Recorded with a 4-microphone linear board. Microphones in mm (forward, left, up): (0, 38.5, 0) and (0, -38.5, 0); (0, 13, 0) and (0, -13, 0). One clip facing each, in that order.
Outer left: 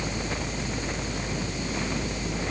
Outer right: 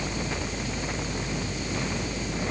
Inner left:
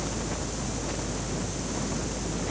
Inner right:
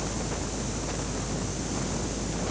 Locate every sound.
Only background noise.